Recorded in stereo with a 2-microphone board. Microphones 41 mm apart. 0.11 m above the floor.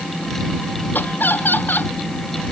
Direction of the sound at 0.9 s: 55° left (ahead or behind).